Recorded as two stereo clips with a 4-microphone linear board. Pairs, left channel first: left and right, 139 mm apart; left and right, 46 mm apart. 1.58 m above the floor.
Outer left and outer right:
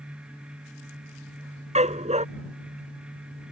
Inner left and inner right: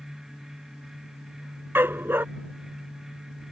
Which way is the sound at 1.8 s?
55° right (ahead or behind).